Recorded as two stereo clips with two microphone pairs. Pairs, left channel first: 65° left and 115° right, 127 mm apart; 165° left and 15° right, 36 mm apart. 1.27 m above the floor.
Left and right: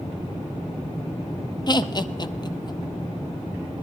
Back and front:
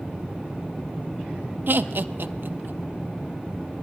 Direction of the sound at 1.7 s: 5° left.